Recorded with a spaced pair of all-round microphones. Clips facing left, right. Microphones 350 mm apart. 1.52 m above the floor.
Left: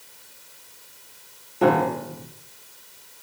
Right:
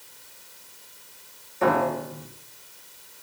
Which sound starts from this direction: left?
A piano, at 1.6 s.